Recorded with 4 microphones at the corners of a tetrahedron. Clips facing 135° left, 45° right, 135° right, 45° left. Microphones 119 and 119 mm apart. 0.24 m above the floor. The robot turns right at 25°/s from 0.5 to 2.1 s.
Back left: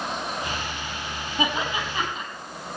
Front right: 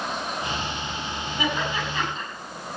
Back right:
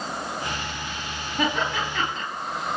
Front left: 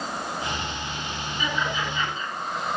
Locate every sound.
1.4 s laughter: 160° right, 5 m; by 2.2 s 140° right, 5 m